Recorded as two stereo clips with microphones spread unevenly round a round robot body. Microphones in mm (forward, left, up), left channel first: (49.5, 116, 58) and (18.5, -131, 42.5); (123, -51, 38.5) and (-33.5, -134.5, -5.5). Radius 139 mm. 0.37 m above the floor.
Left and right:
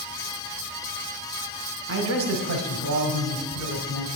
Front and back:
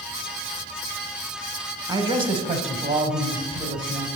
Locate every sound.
1.9 s a man speaking: 95° right, 1.4 m; by 4.1 s 125° right, 2 m